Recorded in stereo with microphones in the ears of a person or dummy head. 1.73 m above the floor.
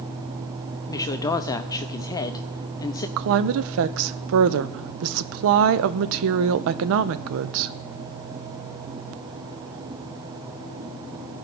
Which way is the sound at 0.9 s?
20° left (ahead or behind).